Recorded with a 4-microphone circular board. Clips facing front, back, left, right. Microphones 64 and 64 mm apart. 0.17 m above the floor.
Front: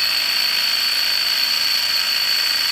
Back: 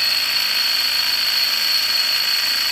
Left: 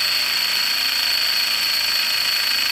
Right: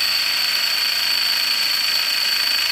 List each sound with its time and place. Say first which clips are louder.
0.0 s an insect: even, even; 145° right, 4.5 m